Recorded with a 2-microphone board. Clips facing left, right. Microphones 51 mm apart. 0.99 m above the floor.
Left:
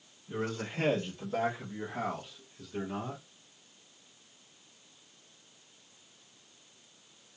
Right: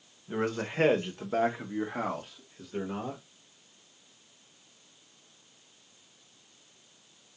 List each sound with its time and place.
0.3 s a man speaking: 60° right (ahead or behind), 1.2 m; by 3.2 s 25° right (ahead or behind), 1.6 m